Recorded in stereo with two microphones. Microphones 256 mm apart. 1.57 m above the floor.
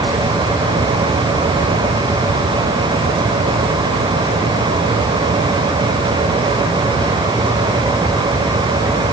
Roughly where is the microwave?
I don't hear a microwave.